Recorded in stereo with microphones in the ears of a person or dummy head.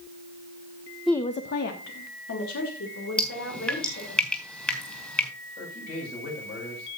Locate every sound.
1.1 s a woman speaking: 5° left (ahead or behind), 0.5 m; by 4.2 s 85° left, 4.5 m
3.2 s dripping: 10° left (ahead or behind), 3 m
5.6 s a man speaking: 50° left (ahead or behind), 6.5 m